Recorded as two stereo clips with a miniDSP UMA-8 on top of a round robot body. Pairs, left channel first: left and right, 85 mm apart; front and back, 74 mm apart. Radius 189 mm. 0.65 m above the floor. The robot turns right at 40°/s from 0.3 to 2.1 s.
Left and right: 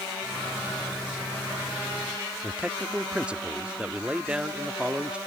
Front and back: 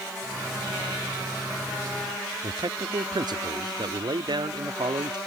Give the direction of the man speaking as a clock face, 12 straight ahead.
6 o'clock.